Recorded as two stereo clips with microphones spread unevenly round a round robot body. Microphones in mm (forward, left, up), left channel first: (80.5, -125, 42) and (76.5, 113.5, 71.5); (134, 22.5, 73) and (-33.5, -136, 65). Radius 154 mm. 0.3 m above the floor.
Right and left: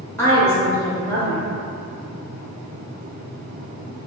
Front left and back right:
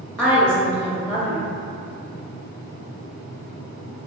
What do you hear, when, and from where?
0.2 s a woman speaking: 40° right, 0.9 m